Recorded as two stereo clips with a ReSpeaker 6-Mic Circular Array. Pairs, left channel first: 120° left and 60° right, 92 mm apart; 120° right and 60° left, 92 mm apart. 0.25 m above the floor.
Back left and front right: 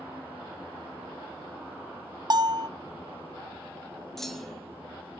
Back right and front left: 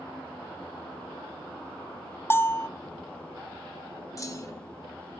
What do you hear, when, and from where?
2.3 s a bell: 65° right, 0.7 m
4.2 s a clunk: 155° right, 2 m